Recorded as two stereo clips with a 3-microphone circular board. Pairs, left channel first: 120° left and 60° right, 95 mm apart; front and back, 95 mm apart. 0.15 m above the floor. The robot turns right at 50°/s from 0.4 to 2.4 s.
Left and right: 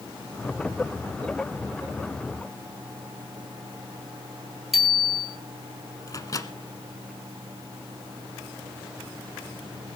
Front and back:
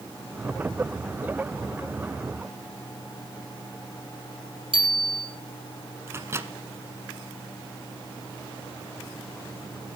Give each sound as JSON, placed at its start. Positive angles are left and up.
{"t": 4.7, "sound": "a bicycle bell", "azimuth_deg": -150, "distance_m": 3.5}
{"t": 6.1, "sound": "a microwave", "azimuth_deg": 135, "distance_m": 1.2}